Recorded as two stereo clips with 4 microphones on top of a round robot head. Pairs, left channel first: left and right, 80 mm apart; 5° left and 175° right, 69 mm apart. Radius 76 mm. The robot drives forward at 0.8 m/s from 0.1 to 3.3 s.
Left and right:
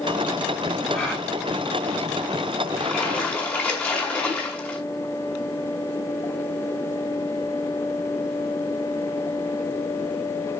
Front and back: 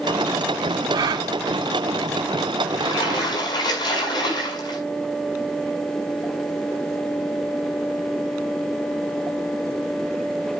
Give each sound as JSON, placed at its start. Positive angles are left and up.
{"t": 0.9, "sound": "a gasp", "azimuth_deg": 170, "distance_m": 1.4}
{"t": 2.8, "sound": "a splash", "azimuth_deg": 20, "distance_m": 6.0}